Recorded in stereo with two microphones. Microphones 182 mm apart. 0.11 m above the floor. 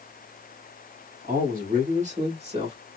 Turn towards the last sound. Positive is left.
turn(degrees=-30)  # may be behind; listen again after turning